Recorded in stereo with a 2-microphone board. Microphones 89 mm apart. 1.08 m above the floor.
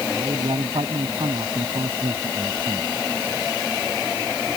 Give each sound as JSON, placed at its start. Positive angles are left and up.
{"t": 0.2, "sound": "a man speaking", "side_deg": -75}